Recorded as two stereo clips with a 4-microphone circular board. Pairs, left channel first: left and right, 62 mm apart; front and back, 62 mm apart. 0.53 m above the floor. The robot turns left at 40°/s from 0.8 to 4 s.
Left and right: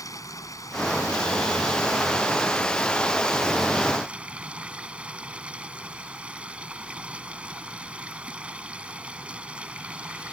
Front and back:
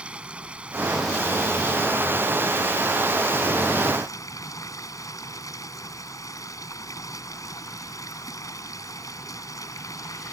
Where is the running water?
110° left; by 10.3 s 20° right.